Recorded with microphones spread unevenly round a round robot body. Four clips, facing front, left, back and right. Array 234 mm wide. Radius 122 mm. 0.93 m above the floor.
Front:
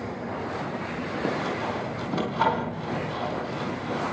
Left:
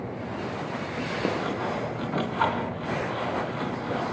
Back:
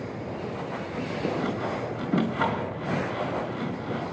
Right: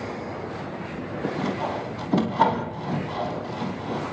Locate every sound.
1.4 s sawing: 110° right, 3 m